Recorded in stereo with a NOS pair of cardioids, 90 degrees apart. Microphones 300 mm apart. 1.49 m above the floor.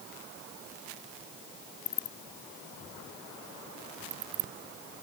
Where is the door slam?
No door slam in this recording.